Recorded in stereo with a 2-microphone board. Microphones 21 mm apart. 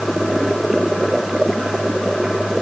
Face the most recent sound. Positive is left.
No sound to turn to.